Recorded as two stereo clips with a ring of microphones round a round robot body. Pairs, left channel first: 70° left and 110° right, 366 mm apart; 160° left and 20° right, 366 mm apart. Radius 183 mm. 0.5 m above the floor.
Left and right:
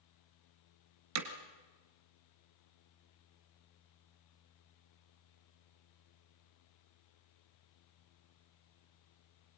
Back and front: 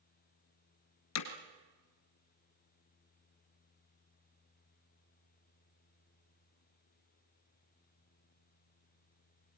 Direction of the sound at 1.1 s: 155° right.